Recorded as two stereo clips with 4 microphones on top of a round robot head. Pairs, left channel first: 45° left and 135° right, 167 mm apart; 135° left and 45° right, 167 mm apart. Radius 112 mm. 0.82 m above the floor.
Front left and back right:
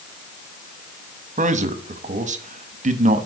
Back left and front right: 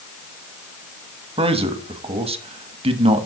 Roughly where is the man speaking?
Right.